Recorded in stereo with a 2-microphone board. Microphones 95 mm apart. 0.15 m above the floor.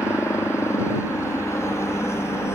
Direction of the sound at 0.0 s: 30° left (ahead or behind).